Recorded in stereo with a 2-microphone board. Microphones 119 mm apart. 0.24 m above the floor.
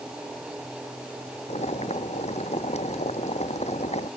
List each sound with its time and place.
1.5 s boiling: 65° left (ahead or behind)